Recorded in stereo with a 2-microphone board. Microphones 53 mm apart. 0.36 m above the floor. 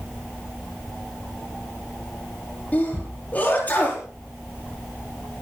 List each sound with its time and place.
2.7 s a sneeze: 35° left (ahead or behind), 8.5 m